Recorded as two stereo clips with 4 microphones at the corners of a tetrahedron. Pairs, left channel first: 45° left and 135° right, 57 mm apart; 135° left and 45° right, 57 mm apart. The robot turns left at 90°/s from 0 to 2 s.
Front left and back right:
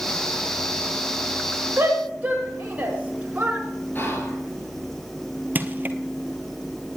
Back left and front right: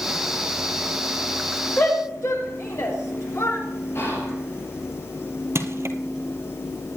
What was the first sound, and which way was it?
A shout, 175° right.